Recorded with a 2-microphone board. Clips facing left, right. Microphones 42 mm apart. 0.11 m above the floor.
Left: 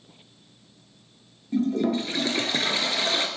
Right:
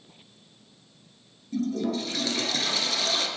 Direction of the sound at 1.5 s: 35° left (ahead or behind).